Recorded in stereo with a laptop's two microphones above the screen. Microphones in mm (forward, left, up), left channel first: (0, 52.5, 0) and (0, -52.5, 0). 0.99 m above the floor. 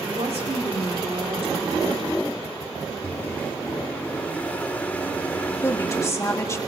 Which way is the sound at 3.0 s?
15° left (ahead or behind).